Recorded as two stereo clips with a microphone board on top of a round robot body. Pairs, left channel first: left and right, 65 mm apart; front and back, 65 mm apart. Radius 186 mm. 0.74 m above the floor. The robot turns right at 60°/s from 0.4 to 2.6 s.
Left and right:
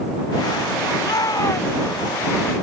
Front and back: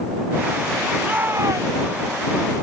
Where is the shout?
105° left; by 1.8 s 155° left.